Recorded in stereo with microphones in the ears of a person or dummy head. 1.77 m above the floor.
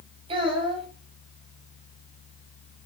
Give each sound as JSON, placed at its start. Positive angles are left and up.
{"t": 0.3, "sound": "a child speaking", "side_deg": -30, "distance_m": 5.5}